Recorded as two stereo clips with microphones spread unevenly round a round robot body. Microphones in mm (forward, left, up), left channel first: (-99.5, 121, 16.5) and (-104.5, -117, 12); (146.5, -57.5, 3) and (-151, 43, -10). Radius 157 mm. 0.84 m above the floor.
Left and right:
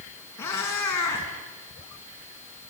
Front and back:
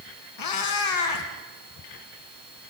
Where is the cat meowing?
5° left, 3.5 m.